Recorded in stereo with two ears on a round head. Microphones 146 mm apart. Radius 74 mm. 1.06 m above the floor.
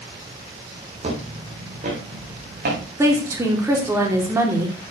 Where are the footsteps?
40° right (ahead or behind), 3.5 m; by 2.8 s 60° right (ahead or behind), 4.5 m.